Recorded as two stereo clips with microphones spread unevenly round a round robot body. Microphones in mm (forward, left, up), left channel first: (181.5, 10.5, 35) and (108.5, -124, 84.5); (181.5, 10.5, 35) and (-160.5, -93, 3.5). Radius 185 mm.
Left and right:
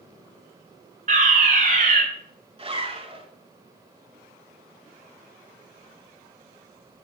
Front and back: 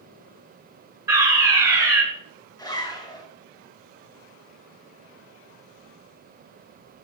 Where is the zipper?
65° right, 5 m.